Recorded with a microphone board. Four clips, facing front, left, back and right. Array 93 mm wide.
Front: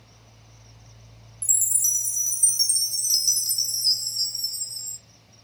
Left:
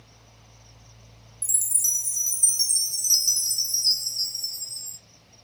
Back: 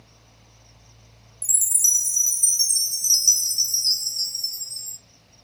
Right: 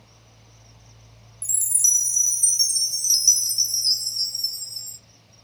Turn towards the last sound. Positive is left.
turn(degrees=-70)